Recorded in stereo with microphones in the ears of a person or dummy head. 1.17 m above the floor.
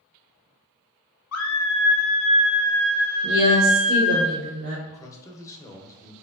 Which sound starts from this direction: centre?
A man speaking, at 4.9 s.